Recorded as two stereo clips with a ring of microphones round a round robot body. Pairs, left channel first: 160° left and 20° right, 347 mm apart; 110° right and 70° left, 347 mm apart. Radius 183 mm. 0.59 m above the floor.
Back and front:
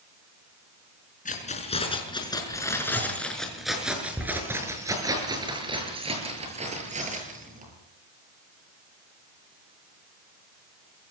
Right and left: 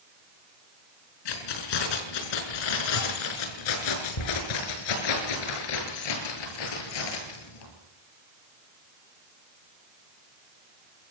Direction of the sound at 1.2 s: 135° right.